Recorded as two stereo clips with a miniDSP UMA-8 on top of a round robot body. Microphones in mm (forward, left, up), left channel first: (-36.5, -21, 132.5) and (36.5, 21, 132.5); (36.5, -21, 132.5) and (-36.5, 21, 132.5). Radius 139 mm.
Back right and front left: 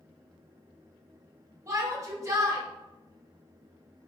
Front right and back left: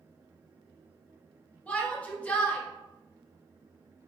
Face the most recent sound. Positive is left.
turn(degrees=35)